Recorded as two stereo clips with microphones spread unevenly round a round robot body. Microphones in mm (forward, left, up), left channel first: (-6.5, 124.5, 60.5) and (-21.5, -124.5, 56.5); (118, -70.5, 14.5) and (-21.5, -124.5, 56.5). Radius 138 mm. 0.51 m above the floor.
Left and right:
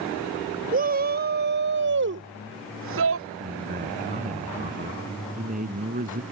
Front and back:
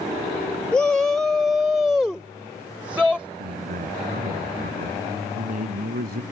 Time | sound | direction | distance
0.7 | a shout | 50° right | ?
3.4 | a man speaking | 150° right | ?